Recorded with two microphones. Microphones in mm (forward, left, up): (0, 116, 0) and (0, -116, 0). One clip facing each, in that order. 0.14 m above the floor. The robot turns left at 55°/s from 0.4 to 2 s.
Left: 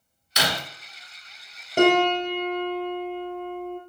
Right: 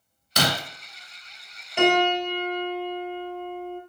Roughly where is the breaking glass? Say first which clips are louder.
Right 3 dB; right.